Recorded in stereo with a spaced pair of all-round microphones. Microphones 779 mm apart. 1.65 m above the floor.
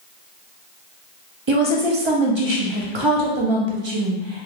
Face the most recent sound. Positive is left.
turn(degrees=-40)  # may be behind; listen again after turning